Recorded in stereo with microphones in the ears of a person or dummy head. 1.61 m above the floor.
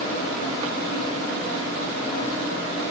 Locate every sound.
Only background noise.